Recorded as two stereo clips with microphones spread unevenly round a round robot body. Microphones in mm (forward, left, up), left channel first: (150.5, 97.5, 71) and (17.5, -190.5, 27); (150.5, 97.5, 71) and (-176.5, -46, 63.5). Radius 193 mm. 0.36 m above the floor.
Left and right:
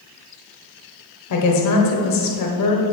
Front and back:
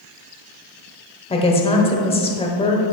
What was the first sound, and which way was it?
A woman speaking, 95° left.